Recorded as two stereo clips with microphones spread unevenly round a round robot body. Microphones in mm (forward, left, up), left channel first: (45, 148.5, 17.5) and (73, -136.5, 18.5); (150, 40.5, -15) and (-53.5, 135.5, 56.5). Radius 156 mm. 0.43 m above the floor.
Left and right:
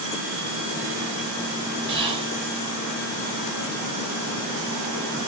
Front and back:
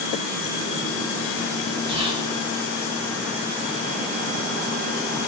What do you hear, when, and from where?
1.9 s whispering: 125° right, 0.8 m